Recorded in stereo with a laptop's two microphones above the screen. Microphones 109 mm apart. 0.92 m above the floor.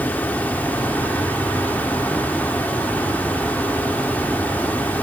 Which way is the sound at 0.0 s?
15° left (ahead or behind).